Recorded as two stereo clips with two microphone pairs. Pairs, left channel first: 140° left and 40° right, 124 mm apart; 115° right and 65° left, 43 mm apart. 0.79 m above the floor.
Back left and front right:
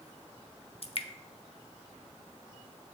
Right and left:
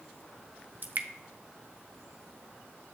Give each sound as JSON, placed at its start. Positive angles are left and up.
{"t": 0.8, "sound": "dripping", "azimuth_deg": 105, "distance_m": 0.5}